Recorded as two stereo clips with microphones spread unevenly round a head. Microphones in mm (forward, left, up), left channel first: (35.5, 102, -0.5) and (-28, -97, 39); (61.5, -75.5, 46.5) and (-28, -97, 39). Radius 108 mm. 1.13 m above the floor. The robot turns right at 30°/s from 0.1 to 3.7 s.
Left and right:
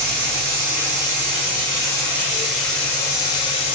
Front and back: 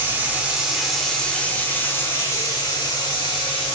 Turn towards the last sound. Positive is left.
turn(degrees=10)